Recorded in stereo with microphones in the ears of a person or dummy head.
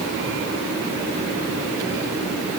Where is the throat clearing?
No throat clearing in this recording.